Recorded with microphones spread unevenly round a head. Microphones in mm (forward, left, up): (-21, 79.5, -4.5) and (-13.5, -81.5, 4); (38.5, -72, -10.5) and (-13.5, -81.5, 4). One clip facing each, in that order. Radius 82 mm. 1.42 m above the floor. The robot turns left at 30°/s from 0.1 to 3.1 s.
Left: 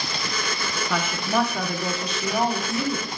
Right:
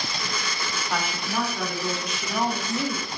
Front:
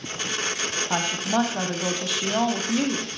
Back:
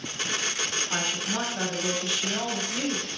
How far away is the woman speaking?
About 0.6 m.